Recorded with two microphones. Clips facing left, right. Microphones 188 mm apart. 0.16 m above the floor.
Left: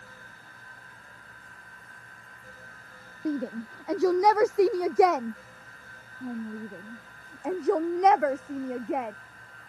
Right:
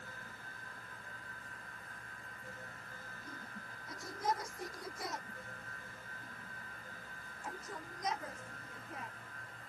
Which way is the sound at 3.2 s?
80° left.